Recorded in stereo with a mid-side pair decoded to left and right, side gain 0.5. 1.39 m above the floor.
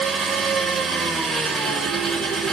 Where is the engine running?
30° right, 2.5 m.